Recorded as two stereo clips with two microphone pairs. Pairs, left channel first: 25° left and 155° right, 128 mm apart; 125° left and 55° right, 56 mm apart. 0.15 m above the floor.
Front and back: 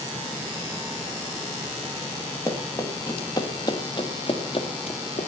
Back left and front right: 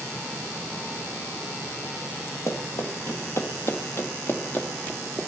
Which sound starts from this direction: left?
Running footsteps, at 2.5 s.